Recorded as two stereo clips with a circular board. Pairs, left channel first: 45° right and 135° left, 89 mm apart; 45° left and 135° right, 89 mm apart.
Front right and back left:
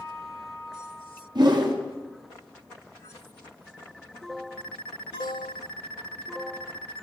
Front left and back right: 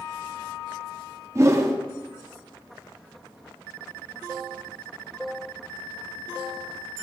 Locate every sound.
1.4 s a whoosh: 170° left, 0.8 m